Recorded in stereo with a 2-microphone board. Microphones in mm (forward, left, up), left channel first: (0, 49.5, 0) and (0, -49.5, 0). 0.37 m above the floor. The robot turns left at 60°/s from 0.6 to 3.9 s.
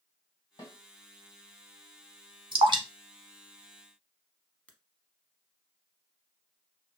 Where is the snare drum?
50° left (ahead or behind), 1.6 m; by 0.8 s 45° left (ahead or behind), 1.6 m.